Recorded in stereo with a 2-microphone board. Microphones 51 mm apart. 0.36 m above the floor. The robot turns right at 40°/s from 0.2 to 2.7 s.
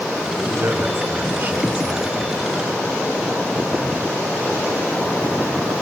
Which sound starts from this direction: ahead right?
A man speaking, at 0.4 s.